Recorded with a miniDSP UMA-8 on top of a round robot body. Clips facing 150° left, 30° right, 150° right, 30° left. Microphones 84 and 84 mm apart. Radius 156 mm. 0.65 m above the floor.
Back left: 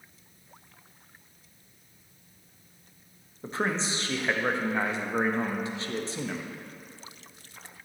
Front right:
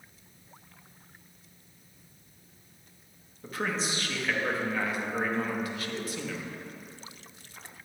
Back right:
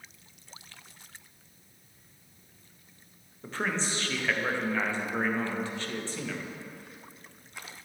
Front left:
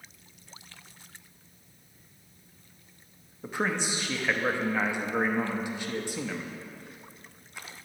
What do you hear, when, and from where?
3.4 s a man speaking: 100° left, 0.9 m